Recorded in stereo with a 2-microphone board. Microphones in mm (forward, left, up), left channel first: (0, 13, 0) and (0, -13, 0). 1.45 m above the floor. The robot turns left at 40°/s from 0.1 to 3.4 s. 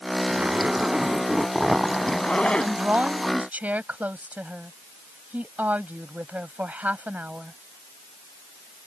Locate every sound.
0.3 s a zipper: 125° right; by 2.7 s 140° left
2.6 s a woman speaking: 60° right; by 7.6 s 95° right